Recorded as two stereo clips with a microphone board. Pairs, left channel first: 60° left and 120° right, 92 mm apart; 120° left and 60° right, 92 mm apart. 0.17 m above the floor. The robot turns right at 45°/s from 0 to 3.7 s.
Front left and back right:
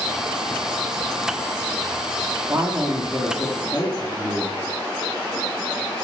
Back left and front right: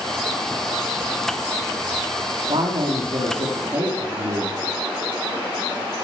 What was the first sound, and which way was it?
A woman speaking, 45° right.